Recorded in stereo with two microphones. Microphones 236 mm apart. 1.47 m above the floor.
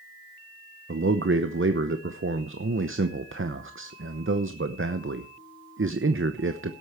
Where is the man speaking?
55° right (ahead or behind), 0.8 m.